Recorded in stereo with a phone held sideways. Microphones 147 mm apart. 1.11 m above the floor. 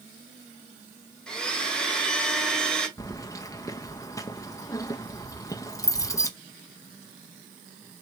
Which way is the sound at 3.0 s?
20° left (ahead or behind).